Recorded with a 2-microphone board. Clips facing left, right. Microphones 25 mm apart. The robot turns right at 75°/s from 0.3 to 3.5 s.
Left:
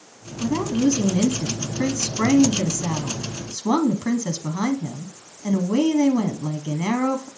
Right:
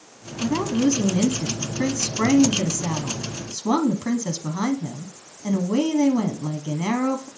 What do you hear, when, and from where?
0.4 s a woman speaking: 10° right (ahead or behind), 1.0 m; by 7.3 s 20° left (ahead or behind), 1.0 m